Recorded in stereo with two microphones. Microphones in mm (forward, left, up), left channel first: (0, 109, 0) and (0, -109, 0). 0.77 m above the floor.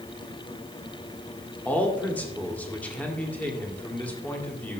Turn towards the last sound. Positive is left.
turn(degrees=5)  # may be behind; listen again after turning